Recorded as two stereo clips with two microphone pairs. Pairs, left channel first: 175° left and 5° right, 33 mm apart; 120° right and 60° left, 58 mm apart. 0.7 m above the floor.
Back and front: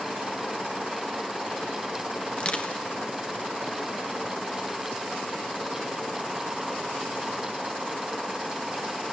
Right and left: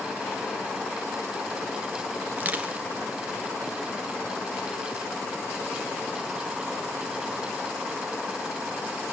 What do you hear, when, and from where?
2.3 s crushing: 125° left, 2.5 m